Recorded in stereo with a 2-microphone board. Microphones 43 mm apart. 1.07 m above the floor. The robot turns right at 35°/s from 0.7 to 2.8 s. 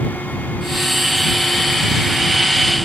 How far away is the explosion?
No explosion in this recording.